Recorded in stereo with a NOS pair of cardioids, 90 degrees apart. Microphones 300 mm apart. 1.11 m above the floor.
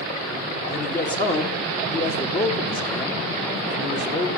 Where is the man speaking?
35° left, 2 m.